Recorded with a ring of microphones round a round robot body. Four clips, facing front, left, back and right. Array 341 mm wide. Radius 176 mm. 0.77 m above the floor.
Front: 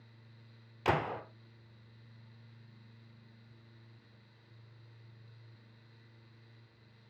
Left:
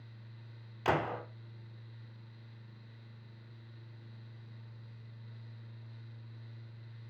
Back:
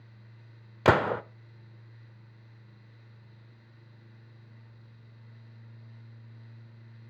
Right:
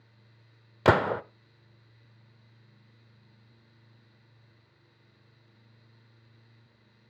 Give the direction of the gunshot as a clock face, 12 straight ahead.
4 o'clock.